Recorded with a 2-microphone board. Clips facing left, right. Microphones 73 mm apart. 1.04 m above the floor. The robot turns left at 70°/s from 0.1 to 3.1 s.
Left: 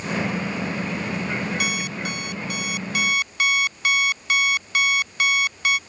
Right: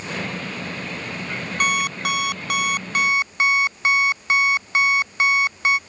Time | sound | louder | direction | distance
1.6 | an alarm clock | right 5 dB | 45° right | ?